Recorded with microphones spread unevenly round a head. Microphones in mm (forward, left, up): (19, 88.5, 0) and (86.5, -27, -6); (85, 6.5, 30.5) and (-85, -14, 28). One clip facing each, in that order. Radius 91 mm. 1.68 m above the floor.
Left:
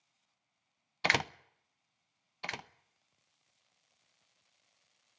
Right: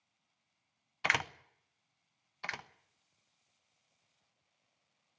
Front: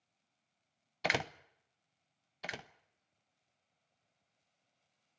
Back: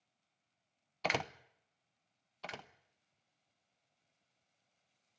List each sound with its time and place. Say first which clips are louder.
1.0 s a door slam: left 3 dB, front 1 dB; 90° left, 0.7 m
2.4 s a door slam: left 2 dB, front 1 dB; 75° left, 1.0 m